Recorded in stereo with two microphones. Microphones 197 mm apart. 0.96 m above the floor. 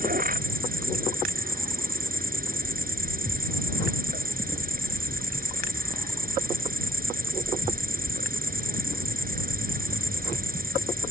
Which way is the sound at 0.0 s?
45° right (ahead or behind).